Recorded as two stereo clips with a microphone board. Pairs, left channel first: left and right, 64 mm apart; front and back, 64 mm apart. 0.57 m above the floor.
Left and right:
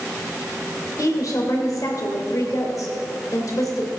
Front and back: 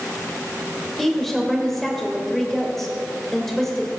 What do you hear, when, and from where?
1.0 s a woman speaking: 85° left, 2.5 m